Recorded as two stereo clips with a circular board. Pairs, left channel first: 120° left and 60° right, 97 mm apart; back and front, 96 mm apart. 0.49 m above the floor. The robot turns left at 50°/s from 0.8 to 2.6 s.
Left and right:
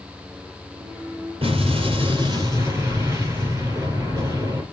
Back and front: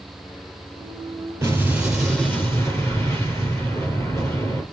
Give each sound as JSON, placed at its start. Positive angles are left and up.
{"t": 1.4, "sound": "an explosion", "azimuth_deg": -60, "distance_m": 3.0}